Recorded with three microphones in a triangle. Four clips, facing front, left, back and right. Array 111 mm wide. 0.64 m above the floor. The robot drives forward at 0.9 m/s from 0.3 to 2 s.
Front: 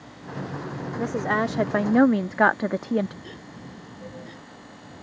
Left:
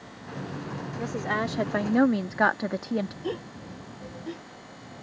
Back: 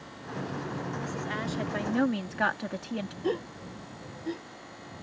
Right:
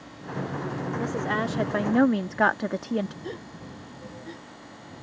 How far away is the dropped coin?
I don't hear a dropped coin.